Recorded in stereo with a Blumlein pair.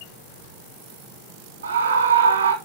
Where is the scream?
70° right, 3 m.